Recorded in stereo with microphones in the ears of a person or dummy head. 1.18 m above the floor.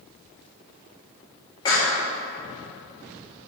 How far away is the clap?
About 2 m.